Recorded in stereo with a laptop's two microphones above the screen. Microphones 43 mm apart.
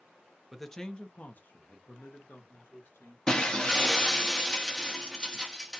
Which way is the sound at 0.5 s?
Centre (ahead or behind).